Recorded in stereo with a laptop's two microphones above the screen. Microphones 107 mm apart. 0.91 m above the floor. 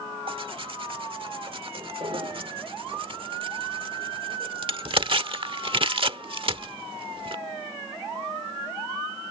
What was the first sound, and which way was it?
Tearing paper, 50° right (ahead or behind).